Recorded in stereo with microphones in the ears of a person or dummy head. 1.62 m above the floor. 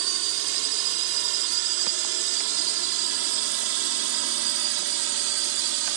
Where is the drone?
70° right (ahead or behind).